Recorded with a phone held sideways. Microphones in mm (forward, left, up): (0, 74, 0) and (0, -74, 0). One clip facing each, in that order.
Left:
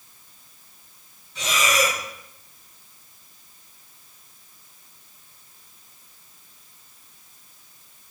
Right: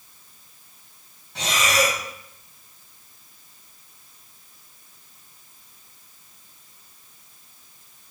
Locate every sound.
1.4 s breathing: 75° right (ahead or behind), 3 m